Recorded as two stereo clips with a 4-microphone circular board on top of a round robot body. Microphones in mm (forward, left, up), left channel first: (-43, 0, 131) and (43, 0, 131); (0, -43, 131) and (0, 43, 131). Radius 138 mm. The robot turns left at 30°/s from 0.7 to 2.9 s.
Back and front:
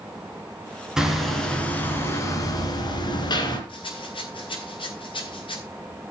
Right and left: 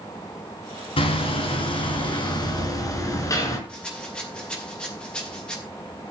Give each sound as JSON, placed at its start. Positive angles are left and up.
{"t": 1.0, "sound": "hammering", "azimuth_deg": -85, "distance_m": 3.5}
{"t": 3.7, "sound": "a rattle", "azimuth_deg": -170, "distance_m": 5.0}